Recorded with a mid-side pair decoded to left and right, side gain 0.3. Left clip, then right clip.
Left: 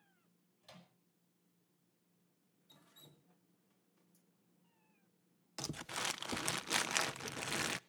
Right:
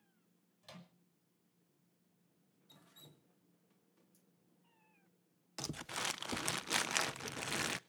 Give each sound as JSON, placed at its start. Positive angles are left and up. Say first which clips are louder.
{"t": 0.6, "sound": "a microwave", "louder": "right 3 dB", "azimuth_deg": -55, "distance_m": 5.5}
{"t": 2.7, "sound": "dripping", "louder": "right 1 dB", "azimuth_deg": -20, "distance_m": 1.5}
{"t": 5.6, "sound": "crumpling", "louder": "even", "azimuth_deg": -5, "distance_m": 0.5}